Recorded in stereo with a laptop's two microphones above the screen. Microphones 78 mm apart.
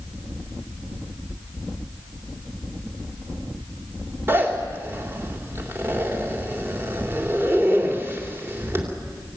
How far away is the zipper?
About 3 m.